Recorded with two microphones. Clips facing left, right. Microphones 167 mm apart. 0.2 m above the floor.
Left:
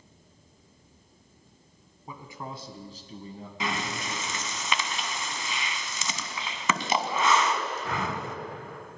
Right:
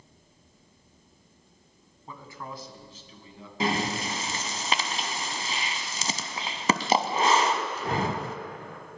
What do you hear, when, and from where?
2.1 s a man speaking: 10° left (ahead or behind), 1.8 m; by 3.5 s 50° left (ahead or behind), 2 m
3.6 s breathing: 35° right (ahead or behind), 0.8 m